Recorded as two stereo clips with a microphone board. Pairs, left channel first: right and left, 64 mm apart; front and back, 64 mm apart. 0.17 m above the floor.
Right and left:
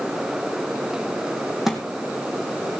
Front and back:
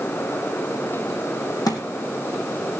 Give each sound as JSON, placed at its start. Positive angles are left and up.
{"t": 1.7, "sound": "a thud", "azimuth_deg": 5, "distance_m": 2.5}